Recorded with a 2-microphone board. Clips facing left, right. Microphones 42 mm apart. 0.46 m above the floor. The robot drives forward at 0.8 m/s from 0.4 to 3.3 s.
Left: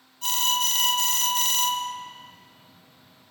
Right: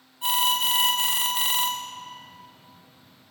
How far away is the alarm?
About 2 m.